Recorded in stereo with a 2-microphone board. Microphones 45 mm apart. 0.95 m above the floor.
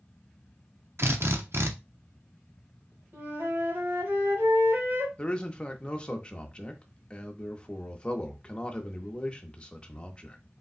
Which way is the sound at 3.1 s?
60° right (ahead or behind).